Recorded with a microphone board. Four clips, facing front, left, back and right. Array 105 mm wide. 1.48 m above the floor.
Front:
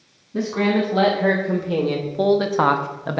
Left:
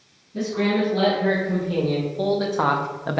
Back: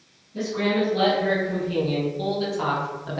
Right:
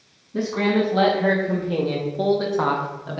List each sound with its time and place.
0.3 s a man speaking: 35° right, 2.5 m; by 3.2 s 50° left, 0.7 m